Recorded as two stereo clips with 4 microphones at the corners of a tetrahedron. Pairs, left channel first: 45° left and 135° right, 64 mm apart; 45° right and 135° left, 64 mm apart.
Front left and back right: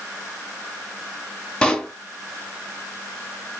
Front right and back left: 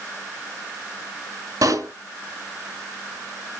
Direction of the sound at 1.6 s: 120° left.